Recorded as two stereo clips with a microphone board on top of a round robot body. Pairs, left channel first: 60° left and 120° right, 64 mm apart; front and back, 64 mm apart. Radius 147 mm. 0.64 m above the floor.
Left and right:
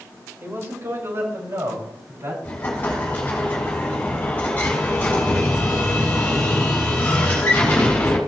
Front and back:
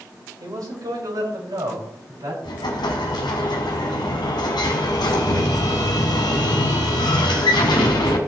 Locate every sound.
0.4 s a man speaking: 165° right, 4 m; by 2.3 s 160° right, 5.5 m
2.4 s an explosion: 5° right, 1.6 m